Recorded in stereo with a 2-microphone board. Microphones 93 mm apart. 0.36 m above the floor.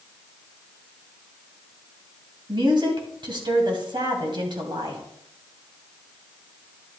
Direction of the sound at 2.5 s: 60° right (ahead or behind).